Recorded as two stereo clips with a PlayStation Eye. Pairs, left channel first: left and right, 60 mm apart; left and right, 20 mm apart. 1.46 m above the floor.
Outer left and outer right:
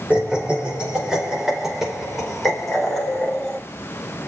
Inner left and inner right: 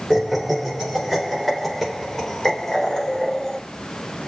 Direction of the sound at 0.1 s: 20° right (ahead or behind).